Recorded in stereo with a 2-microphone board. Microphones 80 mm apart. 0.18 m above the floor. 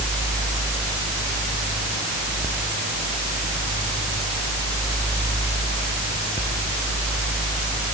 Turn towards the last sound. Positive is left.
No sound to turn to.